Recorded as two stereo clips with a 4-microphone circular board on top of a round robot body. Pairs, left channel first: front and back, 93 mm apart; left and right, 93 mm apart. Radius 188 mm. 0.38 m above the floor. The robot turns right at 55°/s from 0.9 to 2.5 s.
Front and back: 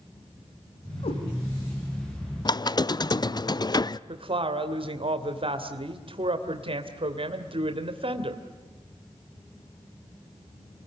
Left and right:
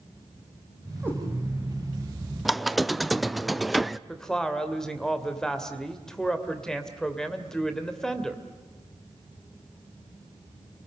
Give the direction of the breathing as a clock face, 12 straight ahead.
No breathing in this recording.